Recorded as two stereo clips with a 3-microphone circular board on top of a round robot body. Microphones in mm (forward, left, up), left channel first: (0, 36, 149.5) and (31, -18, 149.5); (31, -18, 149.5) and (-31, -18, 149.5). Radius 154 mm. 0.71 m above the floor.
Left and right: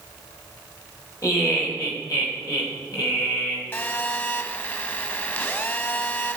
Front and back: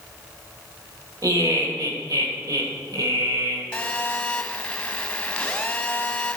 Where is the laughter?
160° left, 3 m.